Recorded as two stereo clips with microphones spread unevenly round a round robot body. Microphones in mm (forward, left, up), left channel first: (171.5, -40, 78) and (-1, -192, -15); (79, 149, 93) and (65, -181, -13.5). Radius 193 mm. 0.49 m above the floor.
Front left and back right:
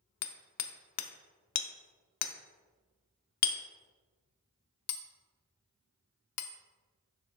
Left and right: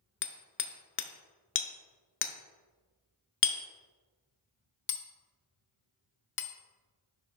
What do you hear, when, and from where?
0.2 s hammering: 25° left, 0.6 m